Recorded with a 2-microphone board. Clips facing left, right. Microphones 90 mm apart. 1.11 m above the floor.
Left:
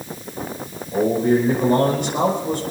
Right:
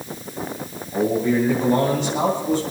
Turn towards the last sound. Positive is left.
turn(degrees=55)  # may be behind; listen again after turning